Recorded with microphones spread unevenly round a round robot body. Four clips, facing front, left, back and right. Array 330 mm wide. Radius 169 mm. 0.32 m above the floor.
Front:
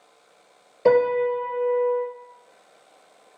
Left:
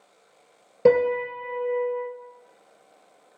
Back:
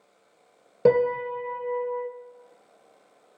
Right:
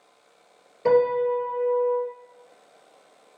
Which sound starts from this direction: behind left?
A piano, at 0.8 s.